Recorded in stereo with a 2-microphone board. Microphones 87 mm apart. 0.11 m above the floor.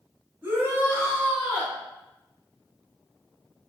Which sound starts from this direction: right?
A shout, at 0.4 s.